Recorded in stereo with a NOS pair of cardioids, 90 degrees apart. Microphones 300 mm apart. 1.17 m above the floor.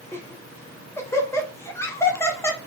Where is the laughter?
10° left, 0.7 m.